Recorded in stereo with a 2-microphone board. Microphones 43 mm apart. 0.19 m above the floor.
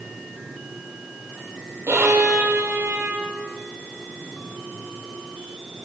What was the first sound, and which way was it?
A violin, 70° right (ahead or behind).